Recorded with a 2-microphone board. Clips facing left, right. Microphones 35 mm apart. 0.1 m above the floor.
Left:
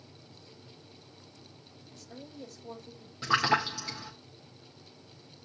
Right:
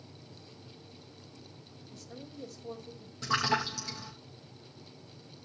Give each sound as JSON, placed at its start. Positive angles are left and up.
{"t": 1.9, "sound": "a woman speaking", "side_deg": 5, "distance_m": 5.5}
{"t": 3.2, "sound": "a splash", "side_deg": 20, "distance_m": 4.0}